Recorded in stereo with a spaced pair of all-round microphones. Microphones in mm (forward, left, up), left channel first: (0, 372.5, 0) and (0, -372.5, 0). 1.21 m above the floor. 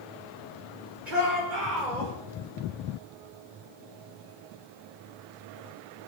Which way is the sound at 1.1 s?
85° right.